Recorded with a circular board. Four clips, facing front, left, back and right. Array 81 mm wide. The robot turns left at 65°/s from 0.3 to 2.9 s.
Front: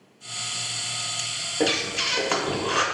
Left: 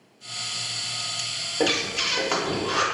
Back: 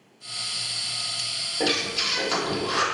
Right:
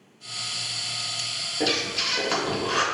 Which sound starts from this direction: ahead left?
Breathing, at 1.6 s.